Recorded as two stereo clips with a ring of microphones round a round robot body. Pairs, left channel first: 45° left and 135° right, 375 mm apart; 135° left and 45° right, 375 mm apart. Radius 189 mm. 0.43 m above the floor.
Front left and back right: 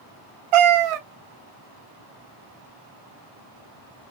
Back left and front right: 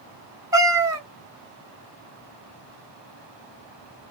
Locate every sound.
0.5 s a cat meowing: 125° right, 0.8 m